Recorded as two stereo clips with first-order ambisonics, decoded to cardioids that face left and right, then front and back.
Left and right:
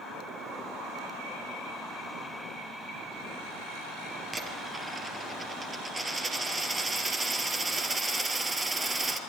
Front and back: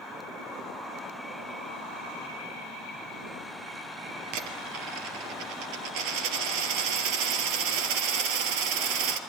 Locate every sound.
4.3 s a dropped coin: 170° right, 2.5 m